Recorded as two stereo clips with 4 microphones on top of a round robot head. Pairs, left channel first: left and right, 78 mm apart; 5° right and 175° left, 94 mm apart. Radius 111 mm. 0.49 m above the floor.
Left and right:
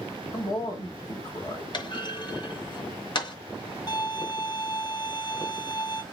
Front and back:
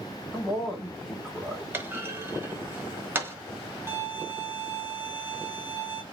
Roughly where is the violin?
Behind left.